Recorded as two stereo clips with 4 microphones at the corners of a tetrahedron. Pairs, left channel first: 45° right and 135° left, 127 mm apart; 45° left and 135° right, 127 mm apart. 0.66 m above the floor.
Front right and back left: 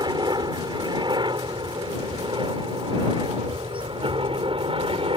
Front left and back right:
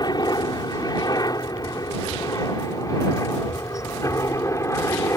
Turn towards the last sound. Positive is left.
turn(degrees=105)